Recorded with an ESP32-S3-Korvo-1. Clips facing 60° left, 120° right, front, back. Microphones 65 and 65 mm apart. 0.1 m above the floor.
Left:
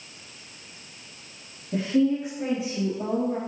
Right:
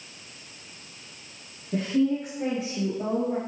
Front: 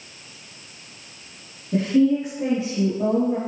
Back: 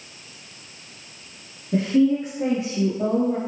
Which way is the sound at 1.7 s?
125° left.